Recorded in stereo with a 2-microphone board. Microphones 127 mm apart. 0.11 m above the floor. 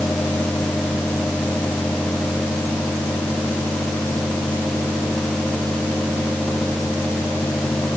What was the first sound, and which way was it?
Only background noise.